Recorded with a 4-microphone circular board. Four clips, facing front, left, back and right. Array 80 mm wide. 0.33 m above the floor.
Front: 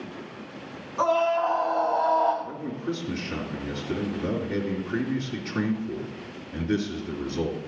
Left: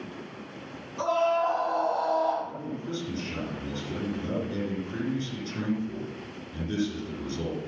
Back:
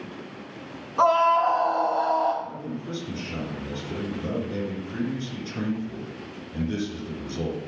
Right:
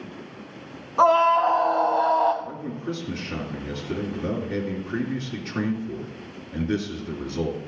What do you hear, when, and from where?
1.0 s a scream: 110° right, 2.5 m; by 2.3 s 95° right, 2.5 m
2.4 s a man speaking: 45° right, 2.5 m